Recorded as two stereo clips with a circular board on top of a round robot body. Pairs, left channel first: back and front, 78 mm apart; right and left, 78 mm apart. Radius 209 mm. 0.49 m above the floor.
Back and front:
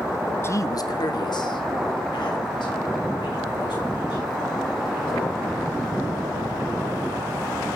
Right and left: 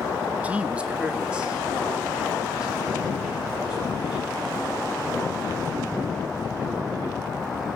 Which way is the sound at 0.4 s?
150° left.